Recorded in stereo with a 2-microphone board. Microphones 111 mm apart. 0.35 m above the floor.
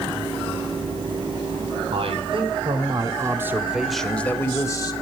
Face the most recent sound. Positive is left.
turn(degrees=35)  # may be behind; listen again after turning